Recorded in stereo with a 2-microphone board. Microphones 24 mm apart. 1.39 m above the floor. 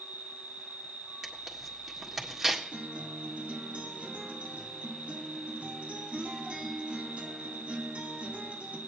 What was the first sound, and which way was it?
An insect, 80° right.